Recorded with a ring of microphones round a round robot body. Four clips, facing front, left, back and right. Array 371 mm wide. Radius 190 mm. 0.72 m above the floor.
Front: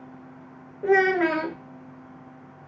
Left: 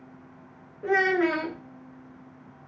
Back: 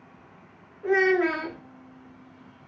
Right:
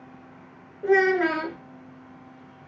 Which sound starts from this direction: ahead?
A child speaking, at 0.8 s.